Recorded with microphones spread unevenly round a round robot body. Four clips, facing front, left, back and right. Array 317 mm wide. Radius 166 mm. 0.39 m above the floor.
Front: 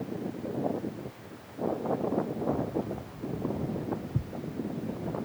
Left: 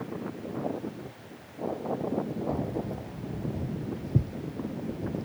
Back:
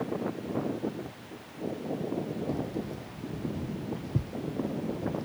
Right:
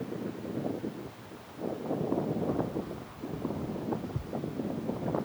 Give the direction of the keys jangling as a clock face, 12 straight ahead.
9 o'clock.